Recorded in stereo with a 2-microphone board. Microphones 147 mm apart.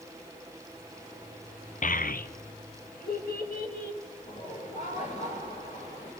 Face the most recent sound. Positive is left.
turn(degrees=55)  # may be behind; listen again after turning